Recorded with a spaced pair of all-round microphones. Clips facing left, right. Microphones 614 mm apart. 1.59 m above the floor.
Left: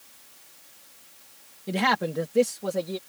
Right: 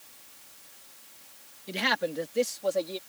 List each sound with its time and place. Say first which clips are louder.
1.7 s a man speaking: left 4 dB; 80° left; by 3.0 s 85° left